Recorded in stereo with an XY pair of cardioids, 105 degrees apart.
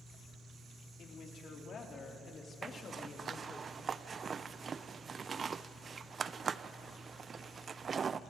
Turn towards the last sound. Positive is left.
turn(degrees=-40)